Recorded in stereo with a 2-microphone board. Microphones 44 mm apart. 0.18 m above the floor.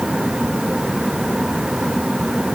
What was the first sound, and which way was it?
Only background noise.